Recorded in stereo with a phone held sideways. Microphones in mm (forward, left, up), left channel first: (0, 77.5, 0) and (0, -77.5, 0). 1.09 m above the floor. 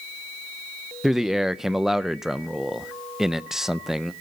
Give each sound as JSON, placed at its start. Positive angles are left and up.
{"t": 1.0, "sound": "a man speaking", "side_deg": 0, "distance_m": 0.6}